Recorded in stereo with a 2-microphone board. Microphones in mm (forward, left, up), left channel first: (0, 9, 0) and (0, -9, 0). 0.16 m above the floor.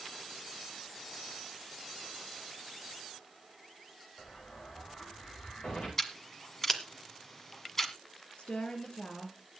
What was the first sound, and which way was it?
An explosion, 80° left.